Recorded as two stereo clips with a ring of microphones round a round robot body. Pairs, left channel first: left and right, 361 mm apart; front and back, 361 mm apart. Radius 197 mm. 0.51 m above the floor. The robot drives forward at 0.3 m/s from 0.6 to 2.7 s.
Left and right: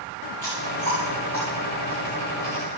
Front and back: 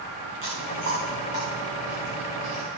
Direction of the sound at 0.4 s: 175° left.